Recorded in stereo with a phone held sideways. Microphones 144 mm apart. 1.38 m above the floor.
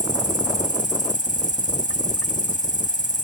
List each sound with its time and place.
0.0 s an insect: 55° left (ahead or behind)